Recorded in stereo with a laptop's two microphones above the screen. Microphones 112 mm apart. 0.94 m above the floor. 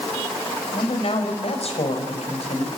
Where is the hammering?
I don't hear hammering.